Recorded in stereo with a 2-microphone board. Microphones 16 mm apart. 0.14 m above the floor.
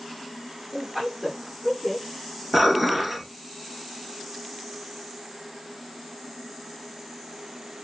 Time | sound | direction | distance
0.7 | a woman speaking | 5° right (ahead or behind) | 4 m
2.5 | dishes clattering | 15° right (ahead or behind) | 1.7 m